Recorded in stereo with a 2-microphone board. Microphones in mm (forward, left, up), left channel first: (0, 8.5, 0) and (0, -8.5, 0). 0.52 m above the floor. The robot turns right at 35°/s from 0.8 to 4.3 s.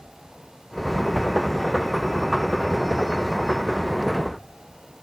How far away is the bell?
I don't hear a bell.